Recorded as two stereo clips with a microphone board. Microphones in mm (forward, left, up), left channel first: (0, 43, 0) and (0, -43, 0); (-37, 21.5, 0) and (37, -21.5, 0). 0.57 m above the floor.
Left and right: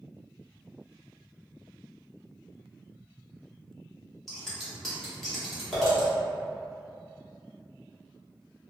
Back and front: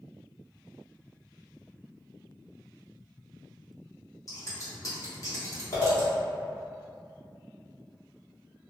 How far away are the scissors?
About 1.0 m.